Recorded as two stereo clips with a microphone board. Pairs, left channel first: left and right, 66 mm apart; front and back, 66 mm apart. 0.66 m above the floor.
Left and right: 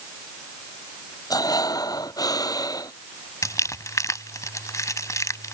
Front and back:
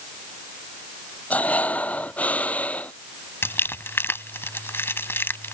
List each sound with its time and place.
1.3 s breathing: 65° left
3.4 s crumpling: 50° left